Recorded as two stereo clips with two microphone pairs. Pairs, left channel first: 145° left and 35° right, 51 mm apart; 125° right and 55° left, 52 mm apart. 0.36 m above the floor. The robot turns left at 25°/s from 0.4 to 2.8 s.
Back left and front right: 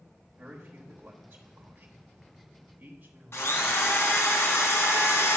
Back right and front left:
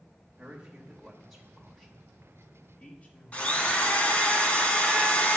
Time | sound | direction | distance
0.4 | a man speaking | 20° right | 1.1 m
3.3 | a drill | 175° left | 1.4 m